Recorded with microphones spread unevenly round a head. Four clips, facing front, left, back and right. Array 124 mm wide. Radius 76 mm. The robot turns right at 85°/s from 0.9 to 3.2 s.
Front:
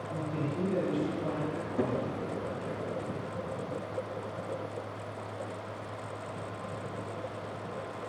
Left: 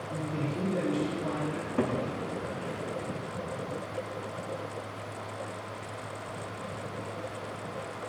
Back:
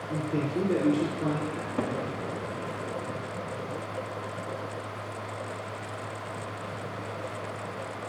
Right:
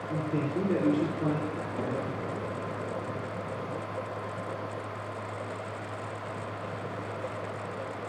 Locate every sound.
0.1 s a man speaking: 150° right, 6.5 m; by 1.4 s 105° right, 6.5 m
1.5 s a cupboard door: 120° left, 7 m; by 2.0 s 160° left, 7 m